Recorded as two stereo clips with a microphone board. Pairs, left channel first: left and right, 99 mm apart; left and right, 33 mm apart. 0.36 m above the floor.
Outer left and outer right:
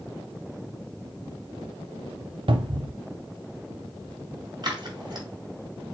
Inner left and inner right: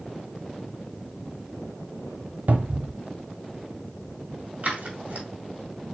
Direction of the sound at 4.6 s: 45° right (ahead or behind).